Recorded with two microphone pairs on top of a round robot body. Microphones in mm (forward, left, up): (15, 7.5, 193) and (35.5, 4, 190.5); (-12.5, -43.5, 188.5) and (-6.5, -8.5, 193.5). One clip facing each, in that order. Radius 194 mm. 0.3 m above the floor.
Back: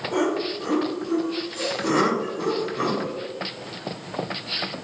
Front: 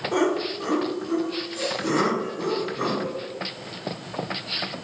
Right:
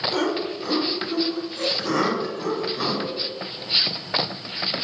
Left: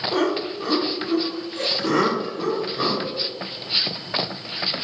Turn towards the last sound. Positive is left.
turn(degrees=140)